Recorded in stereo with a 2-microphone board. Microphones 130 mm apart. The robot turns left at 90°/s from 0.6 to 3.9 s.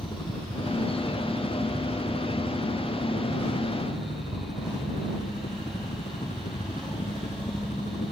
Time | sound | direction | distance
0.0 | a helicopter | 35° left | ?